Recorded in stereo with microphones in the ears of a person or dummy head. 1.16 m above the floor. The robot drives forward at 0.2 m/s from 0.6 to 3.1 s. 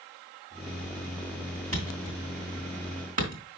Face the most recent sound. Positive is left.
turn(degrees=-35)  # may be behind; listen again after turning